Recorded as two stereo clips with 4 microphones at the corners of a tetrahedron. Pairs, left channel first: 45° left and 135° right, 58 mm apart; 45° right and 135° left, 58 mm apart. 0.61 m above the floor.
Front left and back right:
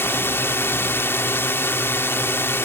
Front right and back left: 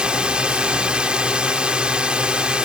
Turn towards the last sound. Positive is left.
turn(degrees=70)